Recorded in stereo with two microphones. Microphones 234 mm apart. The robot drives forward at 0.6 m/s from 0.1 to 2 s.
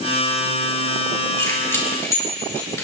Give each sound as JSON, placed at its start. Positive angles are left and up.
{"t": 1.4, "sound": "keys jangling", "side_deg": 15, "distance_m": 4.0}